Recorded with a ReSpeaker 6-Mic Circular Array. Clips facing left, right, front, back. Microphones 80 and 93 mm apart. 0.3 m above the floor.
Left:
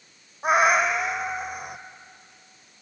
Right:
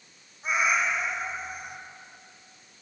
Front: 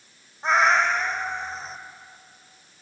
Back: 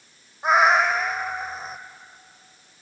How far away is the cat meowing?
About 1.2 m.